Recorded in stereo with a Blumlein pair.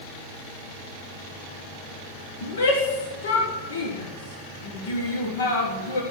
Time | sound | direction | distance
2.4 | a shout | 65° left | 1.4 m